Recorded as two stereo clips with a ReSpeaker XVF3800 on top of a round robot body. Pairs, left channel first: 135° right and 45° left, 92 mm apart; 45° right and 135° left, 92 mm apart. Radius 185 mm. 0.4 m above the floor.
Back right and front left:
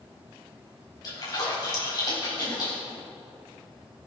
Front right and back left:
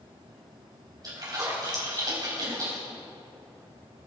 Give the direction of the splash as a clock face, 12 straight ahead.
6 o'clock.